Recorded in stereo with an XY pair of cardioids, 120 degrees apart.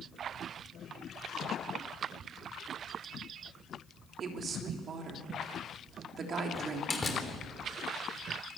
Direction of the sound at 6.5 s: 20° left.